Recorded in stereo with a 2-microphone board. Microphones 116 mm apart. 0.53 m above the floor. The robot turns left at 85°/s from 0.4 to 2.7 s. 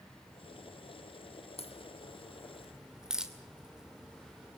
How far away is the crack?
About 2 m.